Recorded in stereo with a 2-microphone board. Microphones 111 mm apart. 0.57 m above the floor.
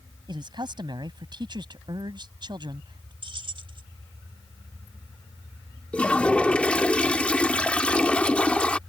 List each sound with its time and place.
0.3 s a man speaking: 45° right (ahead or behind)
3.2 s keys jangling: 50° right (ahead or behind)
5.9 s a toilet flushing: 10° left (ahead or behind)